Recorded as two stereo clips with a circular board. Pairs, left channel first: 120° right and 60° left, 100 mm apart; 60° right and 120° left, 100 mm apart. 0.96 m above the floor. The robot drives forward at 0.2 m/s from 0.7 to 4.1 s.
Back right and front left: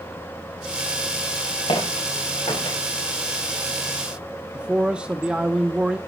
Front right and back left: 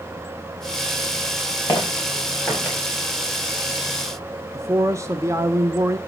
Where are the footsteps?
125° right, 6 m; by 2.8 s 130° right, 6.5 m.